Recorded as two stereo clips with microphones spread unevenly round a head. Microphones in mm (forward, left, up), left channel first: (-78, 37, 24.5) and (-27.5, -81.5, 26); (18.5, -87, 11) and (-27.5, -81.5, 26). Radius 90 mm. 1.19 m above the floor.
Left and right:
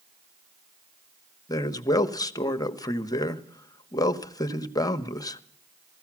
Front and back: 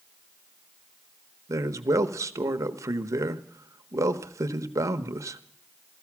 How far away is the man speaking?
About 1.1 m.